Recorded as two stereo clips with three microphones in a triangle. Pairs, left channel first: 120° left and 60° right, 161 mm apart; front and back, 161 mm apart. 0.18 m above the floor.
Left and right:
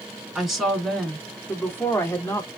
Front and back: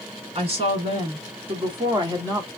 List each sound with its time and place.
0.3 s a woman speaking: 145° right, 1.8 m; by 2.5 s 145° left, 1.3 m